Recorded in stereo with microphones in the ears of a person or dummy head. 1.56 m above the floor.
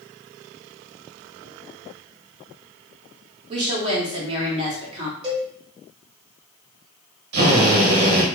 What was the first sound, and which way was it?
A woman speaking, 35° right (ahead or behind).